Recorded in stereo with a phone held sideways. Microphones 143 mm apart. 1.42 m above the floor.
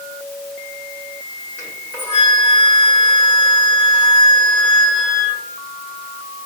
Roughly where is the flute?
Centre.